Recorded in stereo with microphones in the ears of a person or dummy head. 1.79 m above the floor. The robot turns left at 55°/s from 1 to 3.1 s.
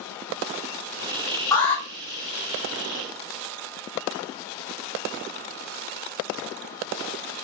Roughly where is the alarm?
Centre.